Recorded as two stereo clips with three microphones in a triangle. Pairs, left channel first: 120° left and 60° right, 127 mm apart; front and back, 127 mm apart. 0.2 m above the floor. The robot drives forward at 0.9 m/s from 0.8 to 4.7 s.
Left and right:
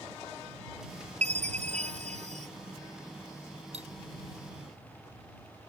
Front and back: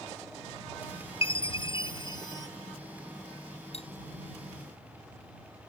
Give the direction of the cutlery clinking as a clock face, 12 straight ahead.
1 o'clock.